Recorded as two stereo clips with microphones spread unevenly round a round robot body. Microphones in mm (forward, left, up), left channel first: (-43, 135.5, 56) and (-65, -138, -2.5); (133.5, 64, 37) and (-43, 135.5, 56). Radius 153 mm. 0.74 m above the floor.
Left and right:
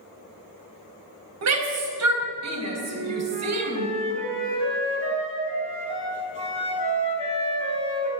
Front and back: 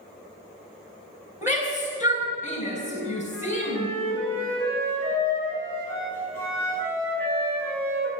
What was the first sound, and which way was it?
A shout, 120° right.